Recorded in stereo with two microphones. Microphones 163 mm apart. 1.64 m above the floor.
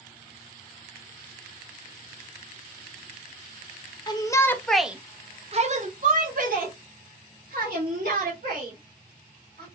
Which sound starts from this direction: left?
A shout, at 4.1 s.